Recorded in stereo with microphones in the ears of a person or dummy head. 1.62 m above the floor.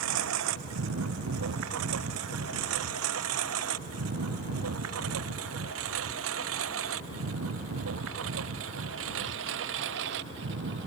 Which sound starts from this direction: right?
A lawn mower, at 0.0 s.